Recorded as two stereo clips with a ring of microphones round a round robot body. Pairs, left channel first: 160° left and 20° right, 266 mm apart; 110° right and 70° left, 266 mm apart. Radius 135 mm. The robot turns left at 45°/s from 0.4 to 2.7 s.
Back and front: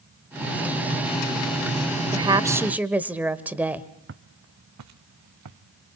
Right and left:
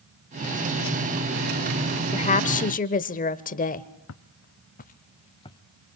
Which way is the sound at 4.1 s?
70° right.